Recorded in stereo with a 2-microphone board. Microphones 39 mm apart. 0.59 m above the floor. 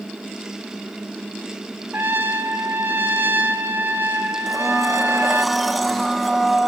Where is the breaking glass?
No breaking glass in this recording.